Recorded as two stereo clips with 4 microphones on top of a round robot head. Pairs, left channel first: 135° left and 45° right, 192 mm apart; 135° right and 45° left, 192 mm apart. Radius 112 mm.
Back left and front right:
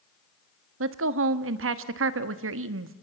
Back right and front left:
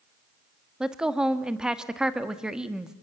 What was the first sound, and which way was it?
A woman speaking, 40° right.